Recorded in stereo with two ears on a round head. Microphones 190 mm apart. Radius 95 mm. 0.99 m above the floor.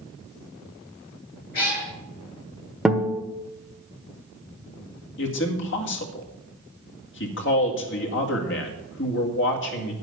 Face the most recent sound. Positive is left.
turn(degrees=60)  # may be behind; listen again after turning